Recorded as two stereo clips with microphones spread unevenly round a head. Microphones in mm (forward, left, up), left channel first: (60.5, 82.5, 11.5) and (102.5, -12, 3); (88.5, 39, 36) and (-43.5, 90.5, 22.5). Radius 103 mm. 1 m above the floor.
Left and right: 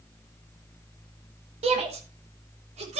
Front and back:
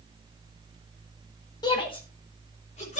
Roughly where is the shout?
Right.